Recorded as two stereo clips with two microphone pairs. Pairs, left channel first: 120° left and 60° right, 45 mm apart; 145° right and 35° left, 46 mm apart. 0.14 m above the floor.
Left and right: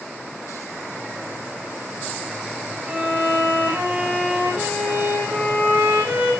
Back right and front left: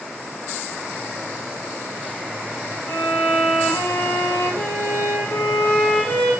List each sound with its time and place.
2.9 s a violin: 105° right, 7.5 m